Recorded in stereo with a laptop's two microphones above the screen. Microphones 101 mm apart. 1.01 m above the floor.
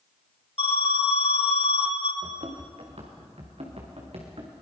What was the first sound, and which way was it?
An alarm, 70° left (ahead or behind).